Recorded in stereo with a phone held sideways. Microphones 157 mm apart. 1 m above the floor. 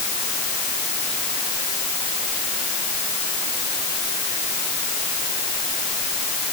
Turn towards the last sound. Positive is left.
No sound to turn to.